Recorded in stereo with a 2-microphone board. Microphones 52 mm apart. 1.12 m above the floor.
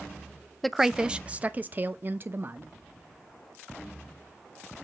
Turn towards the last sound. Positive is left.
turn(degrees=-50)  # may be behind; listen again after turning